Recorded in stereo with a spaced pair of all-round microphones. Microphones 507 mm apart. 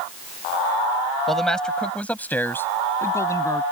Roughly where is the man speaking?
Centre.